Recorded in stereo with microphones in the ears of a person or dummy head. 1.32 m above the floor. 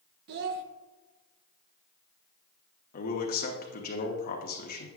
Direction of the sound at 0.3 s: 55° right (ahead or behind).